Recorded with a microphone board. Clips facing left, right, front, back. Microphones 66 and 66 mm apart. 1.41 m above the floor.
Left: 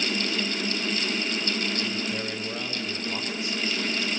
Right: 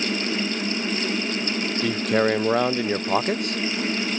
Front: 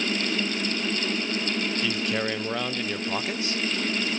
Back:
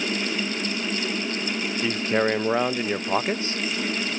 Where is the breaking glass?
No breaking glass in this recording.